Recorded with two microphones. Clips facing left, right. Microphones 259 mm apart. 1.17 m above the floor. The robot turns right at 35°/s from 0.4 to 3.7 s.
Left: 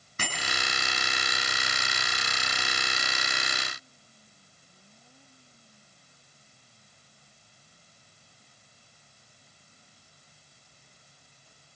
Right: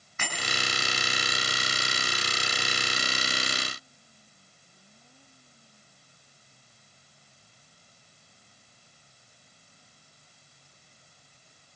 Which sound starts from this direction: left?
A bicycle bell, at 0.2 s.